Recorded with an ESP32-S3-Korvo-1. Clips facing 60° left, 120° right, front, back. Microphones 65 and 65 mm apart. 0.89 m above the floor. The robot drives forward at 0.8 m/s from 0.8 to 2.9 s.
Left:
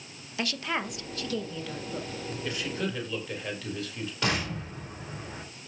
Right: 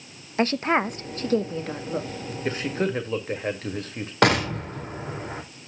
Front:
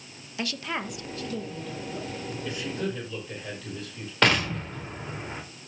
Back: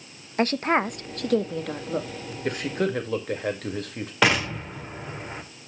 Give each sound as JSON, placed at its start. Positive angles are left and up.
{"t": 0.4, "sound": "a woman speaking", "azimuth_deg": -155, "distance_m": 0.6}
{"t": 2.5, "sound": "a man speaking", "azimuth_deg": -160, "distance_m": 1.5}
{"t": 4.2, "sound": "an explosion", "azimuth_deg": -95, "distance_m": 2.0}